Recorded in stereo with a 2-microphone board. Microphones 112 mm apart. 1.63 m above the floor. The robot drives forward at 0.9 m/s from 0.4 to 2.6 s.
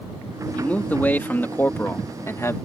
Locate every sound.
0.6 s a man speaking: 15° left (ahead or behind); by 2.6 s 25° left (ahead or behind)